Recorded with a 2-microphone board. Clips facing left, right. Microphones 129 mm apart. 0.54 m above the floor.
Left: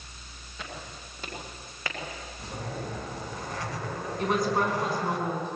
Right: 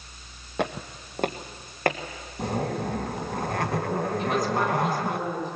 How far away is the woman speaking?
About 5.5 m.